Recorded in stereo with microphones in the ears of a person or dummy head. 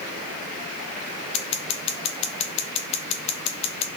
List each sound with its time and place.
1.3 s scissors: 40° left (ahead or behind), 1.0 m